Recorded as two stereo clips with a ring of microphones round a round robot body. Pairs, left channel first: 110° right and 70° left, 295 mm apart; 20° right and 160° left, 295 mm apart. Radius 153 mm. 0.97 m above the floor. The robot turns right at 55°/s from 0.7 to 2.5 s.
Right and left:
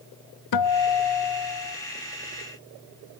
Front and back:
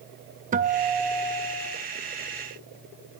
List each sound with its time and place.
0.5 s a guitar: 135° right, 0.8 m; by 1.8 s 80° right, 0.8 m